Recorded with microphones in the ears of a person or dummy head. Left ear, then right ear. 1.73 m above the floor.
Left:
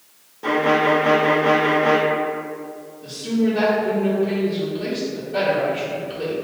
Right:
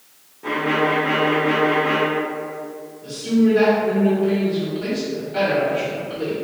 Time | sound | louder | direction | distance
0.4 | a violin | left 3 dB | 80° left | 0.6 m
3.0 | a woman speaking | right 3 dB | 30° left (ahead or behind) | 1.6 m